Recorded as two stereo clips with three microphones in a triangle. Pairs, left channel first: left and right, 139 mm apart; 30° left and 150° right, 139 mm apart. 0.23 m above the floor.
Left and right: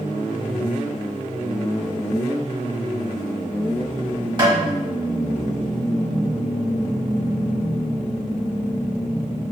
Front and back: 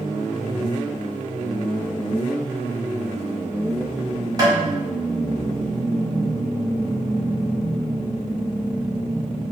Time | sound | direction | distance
4.4 | tapping | 110° right | 1.2 m